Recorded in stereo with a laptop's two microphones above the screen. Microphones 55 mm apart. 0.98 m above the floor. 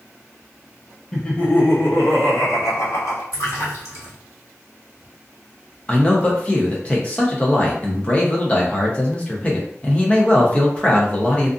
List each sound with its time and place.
1.1 s laughter: 10° left (ahead or behind), 0.6 m; by 3.2 s 75° left (ahead or behind), 1.7 m
3.3 s a splash: 80° left, 1.4 m
5.9 s a man speaking: 25° left (ahead or behind), 0.6 m